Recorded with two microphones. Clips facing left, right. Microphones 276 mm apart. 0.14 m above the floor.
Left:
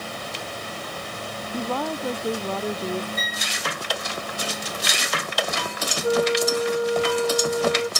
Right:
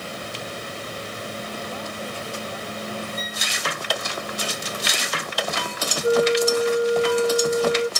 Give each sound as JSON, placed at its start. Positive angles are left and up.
{"t": 1.5, "sound": "a woman speaking", "side_deg": 75}
{"t": 3.2, "sound": "a violin", "side_deg": 80}
{"t": 6.0, "sound": "a flute", "side_deg": -20}